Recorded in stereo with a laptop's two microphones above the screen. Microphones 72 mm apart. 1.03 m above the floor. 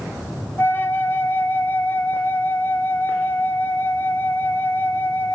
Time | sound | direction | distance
0.6 | a flute | 30° left (ahead or behind) | 1.0 m